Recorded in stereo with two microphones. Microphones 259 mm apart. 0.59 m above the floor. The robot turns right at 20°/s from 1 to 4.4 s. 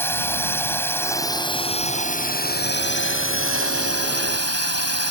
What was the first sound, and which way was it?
A drone, 10° left.